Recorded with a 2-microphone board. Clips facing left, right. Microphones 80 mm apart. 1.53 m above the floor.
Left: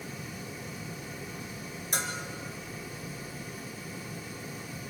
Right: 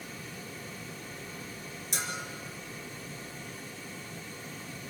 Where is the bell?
55° left (ahead or behind), 3.5 m.